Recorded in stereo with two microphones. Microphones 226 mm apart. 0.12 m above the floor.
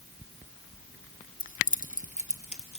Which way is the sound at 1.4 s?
40° left (ahead or behind).